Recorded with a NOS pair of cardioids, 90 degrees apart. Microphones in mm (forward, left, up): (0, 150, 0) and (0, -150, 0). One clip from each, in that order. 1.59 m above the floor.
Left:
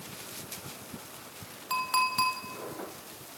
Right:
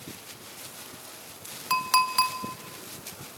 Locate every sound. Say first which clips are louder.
1.7 s a clink: right 4 dB; 55° right, 2.5 m